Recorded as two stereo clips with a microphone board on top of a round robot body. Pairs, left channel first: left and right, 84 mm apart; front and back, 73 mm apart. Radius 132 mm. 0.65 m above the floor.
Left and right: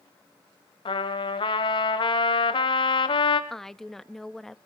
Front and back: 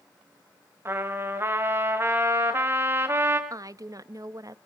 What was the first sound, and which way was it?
A trumpet, 120° left.